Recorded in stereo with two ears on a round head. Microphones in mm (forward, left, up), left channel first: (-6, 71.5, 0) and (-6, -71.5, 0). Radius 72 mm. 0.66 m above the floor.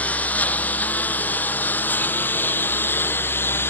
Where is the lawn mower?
10° left (ahead or behind); by 3.7 s 15° left (ahead or behind).